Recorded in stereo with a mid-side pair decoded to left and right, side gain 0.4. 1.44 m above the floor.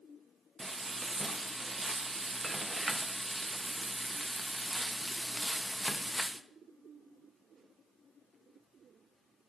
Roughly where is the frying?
Ahead.